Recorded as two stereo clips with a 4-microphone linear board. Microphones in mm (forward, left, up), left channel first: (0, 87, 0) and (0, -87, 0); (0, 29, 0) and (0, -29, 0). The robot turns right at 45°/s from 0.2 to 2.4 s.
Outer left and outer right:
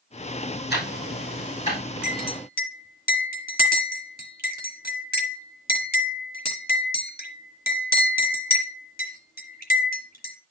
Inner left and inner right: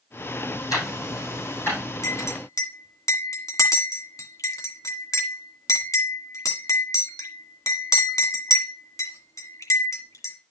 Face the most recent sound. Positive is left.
turn(degrees=65)  # may be behind; listen again after turning